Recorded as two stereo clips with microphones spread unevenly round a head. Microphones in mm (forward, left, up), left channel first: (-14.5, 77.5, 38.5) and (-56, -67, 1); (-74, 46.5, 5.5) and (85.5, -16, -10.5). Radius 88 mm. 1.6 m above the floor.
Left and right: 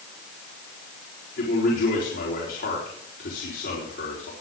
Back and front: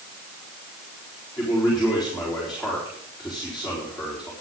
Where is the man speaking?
65° left, 4 m.